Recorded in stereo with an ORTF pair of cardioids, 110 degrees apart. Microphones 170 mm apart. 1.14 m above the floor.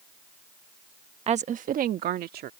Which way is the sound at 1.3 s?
40° right.